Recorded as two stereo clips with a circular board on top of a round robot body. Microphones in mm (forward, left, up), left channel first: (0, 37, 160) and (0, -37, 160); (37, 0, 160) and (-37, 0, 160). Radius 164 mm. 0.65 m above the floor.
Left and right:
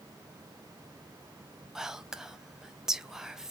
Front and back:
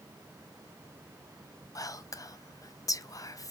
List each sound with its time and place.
1.8 s whispering: 10° right, 0.7 m